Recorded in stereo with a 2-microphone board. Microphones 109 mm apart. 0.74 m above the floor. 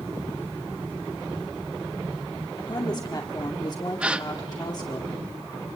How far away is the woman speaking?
About 2 m.